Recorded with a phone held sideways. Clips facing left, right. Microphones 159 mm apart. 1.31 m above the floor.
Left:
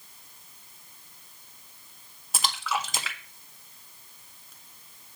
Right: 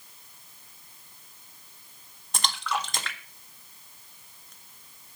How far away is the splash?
About 1.5 m.